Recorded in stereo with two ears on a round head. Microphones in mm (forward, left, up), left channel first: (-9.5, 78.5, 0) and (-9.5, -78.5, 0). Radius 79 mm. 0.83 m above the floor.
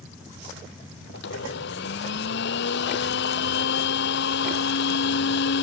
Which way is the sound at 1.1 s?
70° left (ahead or behind).